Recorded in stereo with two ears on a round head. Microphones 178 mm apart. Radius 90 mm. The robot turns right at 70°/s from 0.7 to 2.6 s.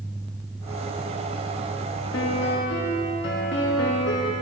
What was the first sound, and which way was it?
A piano, 80° left.